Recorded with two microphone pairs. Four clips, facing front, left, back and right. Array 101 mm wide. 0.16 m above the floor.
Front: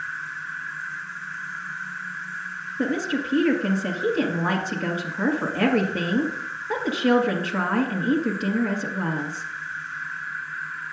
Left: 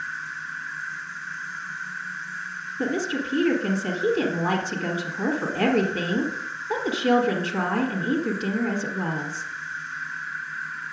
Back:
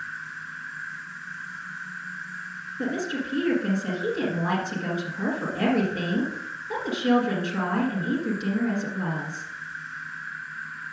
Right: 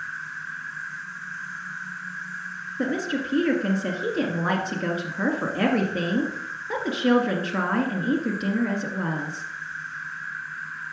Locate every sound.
0.0 s an insect: 15° left, 1.4 m
2.8 s a woman speaking: 35° right, 1.7 m